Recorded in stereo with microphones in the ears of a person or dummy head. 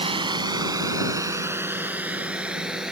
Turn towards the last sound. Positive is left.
turn(degrees=-5)  # may be behind; listen again after turning